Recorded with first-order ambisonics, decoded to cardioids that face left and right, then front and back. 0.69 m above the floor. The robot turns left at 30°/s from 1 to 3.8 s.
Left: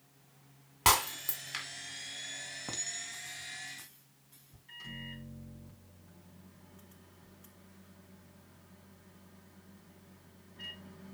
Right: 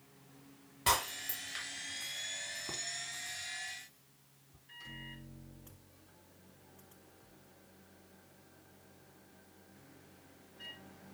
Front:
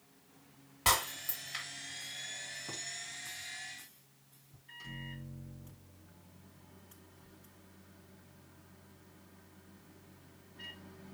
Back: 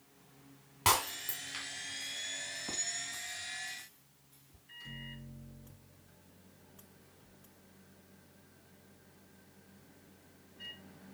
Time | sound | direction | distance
0.8 | breaking glass | 105° left | 2 m
2.7 | a clink | 105° left | 2.5 m
4.7 | a microwave | 50° left | 4 m